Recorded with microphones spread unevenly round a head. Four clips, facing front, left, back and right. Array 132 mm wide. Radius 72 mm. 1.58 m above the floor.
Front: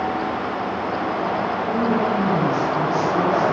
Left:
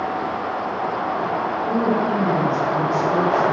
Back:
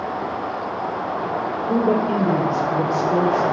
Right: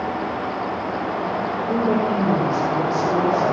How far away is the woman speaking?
About 4.5 m.